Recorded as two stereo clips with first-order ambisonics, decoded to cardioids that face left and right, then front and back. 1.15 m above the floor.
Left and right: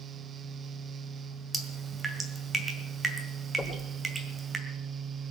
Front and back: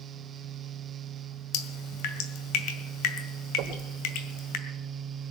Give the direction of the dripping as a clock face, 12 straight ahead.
12 o'clock.